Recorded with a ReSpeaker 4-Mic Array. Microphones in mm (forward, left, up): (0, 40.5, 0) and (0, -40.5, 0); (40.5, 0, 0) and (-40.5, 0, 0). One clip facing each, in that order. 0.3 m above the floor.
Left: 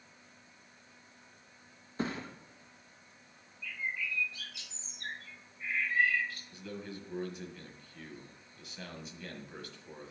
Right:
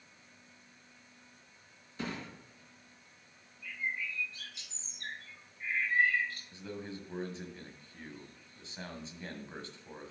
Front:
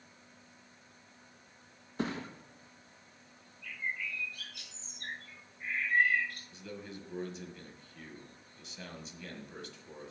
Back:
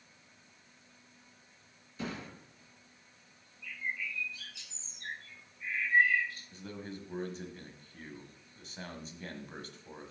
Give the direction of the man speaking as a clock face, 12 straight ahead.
5 o'clock.